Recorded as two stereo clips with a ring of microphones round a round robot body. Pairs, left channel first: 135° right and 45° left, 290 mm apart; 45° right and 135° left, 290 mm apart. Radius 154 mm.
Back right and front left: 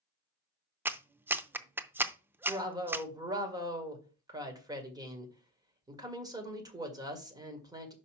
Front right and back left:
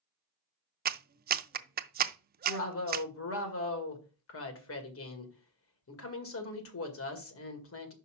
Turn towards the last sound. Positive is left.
turn(degrees=-30)